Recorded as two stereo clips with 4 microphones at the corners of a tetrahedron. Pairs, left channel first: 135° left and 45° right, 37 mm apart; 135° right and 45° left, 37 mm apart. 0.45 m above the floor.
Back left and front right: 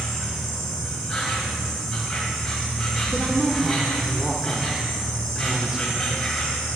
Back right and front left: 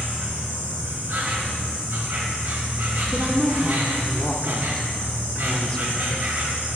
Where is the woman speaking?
90° right, 0.8 m.